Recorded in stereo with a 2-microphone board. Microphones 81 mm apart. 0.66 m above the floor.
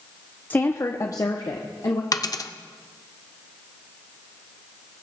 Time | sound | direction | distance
0.5 | a woman speaking | 20° left (ahead or behind) | 0.5 m
2.1 | a dropped coin | 50° left (ahead or behind) | 0.6 m